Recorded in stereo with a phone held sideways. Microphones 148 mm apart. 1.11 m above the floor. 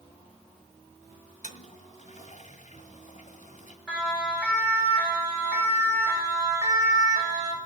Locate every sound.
1.4 s a toilet flushing: 55° left (ahead or behind), 1.5 m
3.9 s a siren: 5° right (ahead or behind), 6.5 m; by 7.6 s 30° right (ahead or behind), 4 m